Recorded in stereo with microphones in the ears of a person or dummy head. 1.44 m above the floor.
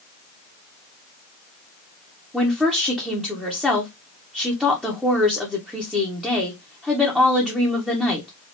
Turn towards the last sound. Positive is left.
turn(degrees=-5)  # may be behind; listen again after turning